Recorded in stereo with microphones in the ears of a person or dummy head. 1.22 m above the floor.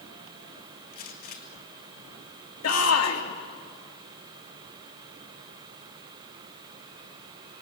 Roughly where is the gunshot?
Left.